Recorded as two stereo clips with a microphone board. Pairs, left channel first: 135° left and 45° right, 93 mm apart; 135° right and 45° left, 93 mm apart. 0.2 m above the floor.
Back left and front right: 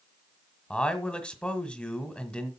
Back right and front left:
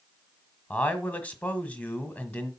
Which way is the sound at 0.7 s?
175° right.